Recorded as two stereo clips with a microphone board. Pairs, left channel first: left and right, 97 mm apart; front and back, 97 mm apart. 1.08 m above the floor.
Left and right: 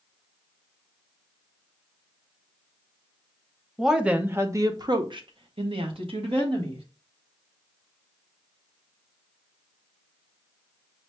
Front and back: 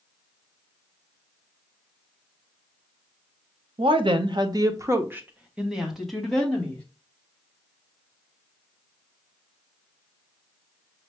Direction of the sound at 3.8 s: Straight behind.